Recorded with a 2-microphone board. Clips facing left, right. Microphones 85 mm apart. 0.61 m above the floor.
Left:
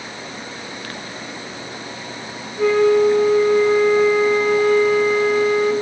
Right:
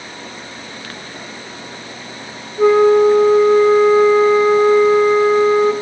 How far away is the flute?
About 0.6 m.